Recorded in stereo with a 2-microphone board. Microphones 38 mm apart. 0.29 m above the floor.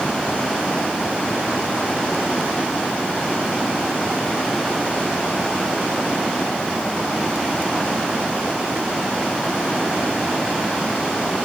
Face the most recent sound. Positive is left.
No sound to turn to.